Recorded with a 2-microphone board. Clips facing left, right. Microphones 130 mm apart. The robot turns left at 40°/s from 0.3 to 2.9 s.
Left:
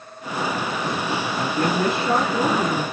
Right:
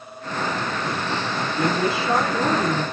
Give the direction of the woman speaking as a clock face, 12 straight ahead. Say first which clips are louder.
Even; 9 o'clock.